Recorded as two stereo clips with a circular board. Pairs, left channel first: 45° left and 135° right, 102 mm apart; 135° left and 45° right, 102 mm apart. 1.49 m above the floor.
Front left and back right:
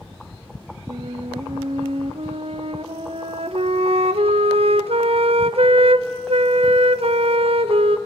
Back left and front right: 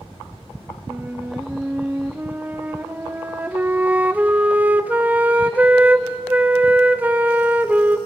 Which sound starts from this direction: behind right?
A flute, at 0.9 s.